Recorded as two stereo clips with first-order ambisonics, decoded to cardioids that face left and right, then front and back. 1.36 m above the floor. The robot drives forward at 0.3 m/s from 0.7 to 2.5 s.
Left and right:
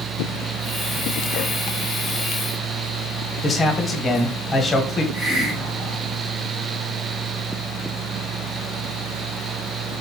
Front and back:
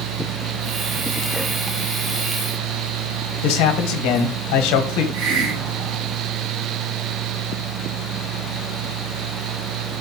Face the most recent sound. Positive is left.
turn(degrees=175)